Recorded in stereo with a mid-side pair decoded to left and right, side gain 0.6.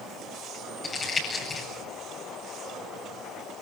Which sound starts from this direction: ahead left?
Crumpling, at 0.8 s.